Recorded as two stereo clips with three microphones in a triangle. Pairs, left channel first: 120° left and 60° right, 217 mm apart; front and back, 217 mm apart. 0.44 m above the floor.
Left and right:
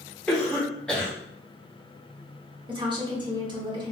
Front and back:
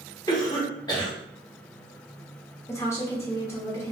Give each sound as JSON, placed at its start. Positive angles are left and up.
{"t": 0.3, "sound": "a cough", "azimuth_deg": 40, "distance_m": 1.4}
{"t": 2.7, "sound": "a woman speaking", "azimuth_deg": -50, "distance_m": 0.9}